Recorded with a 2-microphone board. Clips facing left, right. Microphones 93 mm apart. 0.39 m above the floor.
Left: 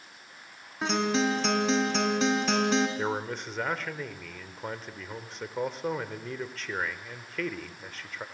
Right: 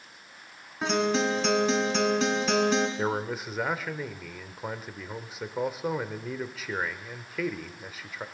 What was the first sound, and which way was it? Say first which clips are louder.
A guitar: right 1 dB; centre (ahead or behind).